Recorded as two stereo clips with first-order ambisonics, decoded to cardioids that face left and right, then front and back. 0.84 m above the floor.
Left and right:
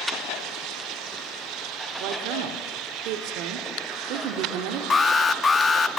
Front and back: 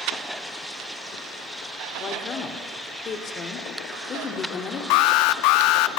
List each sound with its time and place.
2.0 s a woman speaking: 60° right, 2 m
4.9 s an alarm: 15° left, 1.0 m